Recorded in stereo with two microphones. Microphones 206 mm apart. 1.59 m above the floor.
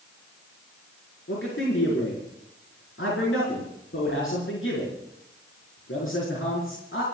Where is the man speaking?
80° left, 4.5 m.